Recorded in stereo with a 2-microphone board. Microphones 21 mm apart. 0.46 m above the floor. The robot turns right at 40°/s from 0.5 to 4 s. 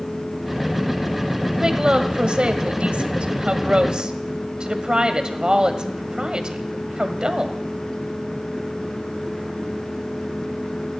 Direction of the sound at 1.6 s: 145° right.